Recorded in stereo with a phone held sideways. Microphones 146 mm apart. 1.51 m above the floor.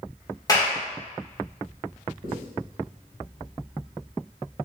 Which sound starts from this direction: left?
A clap, at 0.5 s.